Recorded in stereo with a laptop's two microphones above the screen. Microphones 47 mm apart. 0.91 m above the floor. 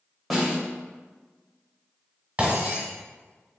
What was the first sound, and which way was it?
A snare drum, 5° right (ahead or behind).